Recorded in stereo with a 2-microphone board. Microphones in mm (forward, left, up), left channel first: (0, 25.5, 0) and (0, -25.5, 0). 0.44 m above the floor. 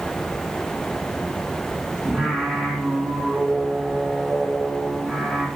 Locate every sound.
2.0 s singing: 10° left (ahead or behind), 2.5 m